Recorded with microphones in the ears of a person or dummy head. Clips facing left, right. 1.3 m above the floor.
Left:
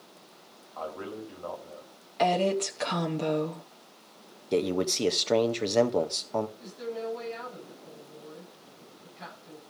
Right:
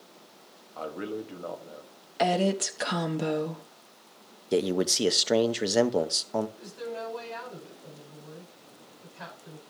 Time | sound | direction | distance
0.8 | a man speaking | 25° right (ahead or behind) | 1.6 m
2.2 | a woman speaking | 5° right (ahead or behind) | 0.6 m
4.5 | a man speaking | centre (ahead or behind) | 0.5 m
6.6 | a woman speaking | 60° right (ahead or behind) | 9.5 m